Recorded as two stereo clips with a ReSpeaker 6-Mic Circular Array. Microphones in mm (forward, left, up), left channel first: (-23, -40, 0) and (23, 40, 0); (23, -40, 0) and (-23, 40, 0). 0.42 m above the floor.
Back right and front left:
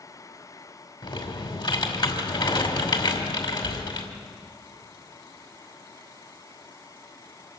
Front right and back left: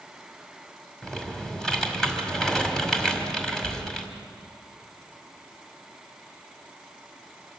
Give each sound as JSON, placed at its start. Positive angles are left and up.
{"t": 1.0, "sound": "typing on a keyboard", "azimuth_deg": -145, "distance_m": 2.0}